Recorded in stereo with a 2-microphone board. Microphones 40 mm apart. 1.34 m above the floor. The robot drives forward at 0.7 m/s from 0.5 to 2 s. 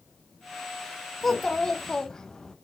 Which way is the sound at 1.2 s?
10° left (ahead or behind).